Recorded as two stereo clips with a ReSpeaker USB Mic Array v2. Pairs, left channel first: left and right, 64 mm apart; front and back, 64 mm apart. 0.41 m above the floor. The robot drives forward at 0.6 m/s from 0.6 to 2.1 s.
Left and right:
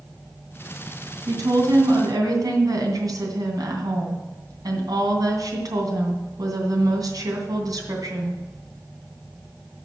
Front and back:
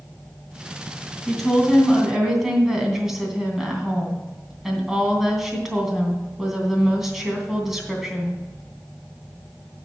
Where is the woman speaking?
85° right, 3 m; by 8.4 s 95° right, 3 m.